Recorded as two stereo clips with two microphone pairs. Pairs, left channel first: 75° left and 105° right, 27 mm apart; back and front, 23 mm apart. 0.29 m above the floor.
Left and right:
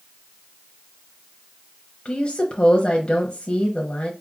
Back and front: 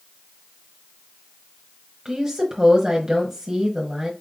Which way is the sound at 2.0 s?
50° left.